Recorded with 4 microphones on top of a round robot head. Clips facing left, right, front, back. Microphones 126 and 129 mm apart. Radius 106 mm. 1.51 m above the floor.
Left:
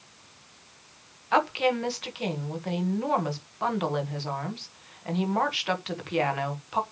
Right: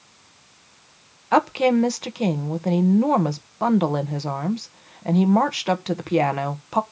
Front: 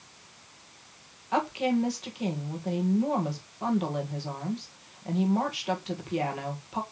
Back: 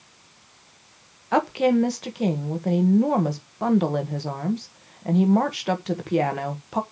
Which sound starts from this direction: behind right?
A woman speaking, at 1.3 s.